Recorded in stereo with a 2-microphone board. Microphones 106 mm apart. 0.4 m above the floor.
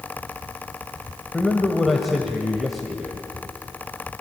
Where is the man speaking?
Centre (ahead or behind), 1.8 m.